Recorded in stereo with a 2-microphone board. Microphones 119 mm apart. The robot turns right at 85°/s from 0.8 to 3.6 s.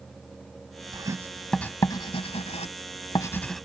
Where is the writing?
40° right (ahead or behind); by 3.6 s centre (ahead or behind).